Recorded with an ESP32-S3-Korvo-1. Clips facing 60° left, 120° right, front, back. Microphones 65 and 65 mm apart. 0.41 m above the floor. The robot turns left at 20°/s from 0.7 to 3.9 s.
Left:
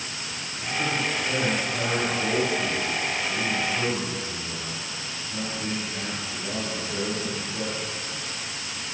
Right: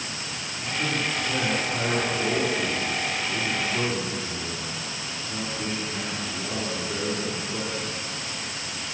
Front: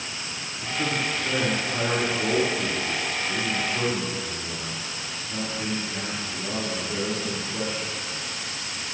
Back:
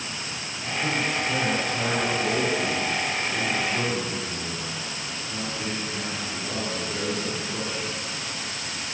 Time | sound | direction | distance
0.6 | a man speaking | 20° right | 4.5 m